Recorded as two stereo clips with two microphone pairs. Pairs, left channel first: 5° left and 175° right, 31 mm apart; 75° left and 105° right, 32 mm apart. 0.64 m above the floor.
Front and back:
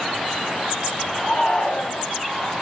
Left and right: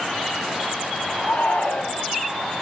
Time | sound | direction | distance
1.2 | a shout | 70° left | 3 m